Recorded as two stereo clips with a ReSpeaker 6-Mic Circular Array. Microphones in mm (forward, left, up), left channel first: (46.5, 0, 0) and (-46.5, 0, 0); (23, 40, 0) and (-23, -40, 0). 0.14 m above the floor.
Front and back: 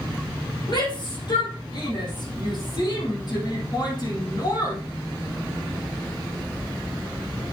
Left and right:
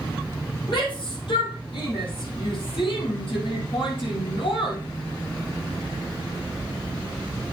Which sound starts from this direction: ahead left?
A shout, at 0.7 s.